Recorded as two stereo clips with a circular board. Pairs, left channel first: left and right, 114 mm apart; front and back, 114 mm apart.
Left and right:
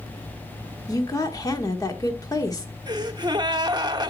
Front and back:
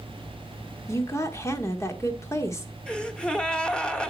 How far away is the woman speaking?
About 1.2 m.